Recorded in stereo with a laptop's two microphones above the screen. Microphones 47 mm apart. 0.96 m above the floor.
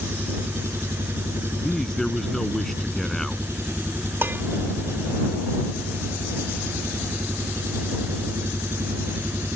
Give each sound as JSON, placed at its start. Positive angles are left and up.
{"t": 0.0, "sound": "an engine running", "side_deg": -65}
{"t": 1.6, "sound": "a man speaking", "side_deg": 10}
{"t": 4.2, "sound": "dishes clattering", "side_deg": -50}